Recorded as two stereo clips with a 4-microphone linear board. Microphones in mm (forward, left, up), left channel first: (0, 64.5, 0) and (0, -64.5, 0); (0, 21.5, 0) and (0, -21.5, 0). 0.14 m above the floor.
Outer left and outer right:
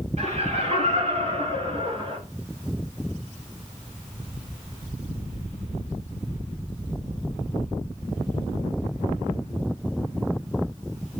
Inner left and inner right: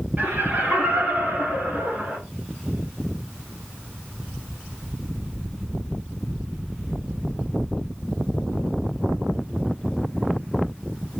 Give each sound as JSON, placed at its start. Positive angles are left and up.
{"t": 0.2, "sound": "laughter", "side_deg": -55, "distance_m": 3.0}